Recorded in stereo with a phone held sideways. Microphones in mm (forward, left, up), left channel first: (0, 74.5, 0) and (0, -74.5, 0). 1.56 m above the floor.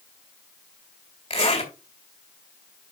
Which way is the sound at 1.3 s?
45° left (ahead or behind).